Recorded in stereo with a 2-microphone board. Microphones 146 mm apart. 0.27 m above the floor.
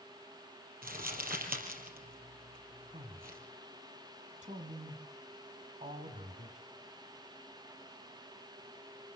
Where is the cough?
I don't hear a cough.